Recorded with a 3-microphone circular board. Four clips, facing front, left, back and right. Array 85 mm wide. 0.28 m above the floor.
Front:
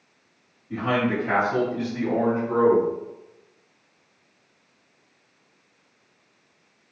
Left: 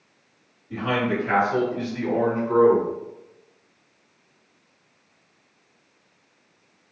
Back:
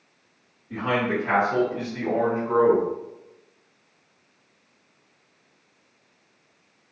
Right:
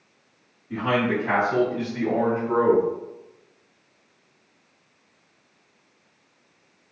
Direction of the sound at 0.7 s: 85° right.